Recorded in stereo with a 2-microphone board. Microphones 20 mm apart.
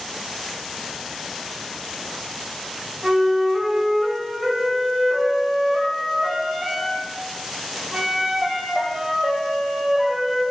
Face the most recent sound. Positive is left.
turn(degrees=-30)  # may be behind; listen again after turning